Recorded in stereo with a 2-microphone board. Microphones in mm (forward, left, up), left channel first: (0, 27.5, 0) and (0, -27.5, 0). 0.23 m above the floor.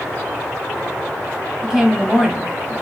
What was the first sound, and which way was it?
A woman speaking, 10° right (ahead or behind).